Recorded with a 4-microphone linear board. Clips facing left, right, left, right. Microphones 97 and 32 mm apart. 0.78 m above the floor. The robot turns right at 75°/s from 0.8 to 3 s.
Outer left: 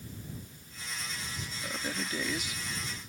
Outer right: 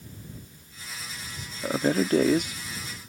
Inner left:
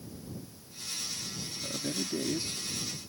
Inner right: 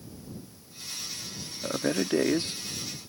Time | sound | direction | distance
1.6 | a man speaking | 50° right (ahead or behind) | ?